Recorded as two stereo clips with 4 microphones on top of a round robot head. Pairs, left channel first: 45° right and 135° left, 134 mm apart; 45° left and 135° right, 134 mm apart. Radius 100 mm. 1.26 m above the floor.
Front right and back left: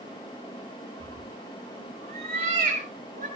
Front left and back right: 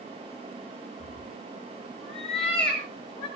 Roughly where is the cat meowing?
Left.